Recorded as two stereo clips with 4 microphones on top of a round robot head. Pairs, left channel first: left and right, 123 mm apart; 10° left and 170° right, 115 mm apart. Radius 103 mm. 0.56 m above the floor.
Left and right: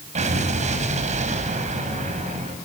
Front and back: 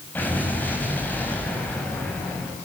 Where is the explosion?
65° right, 4.5 m.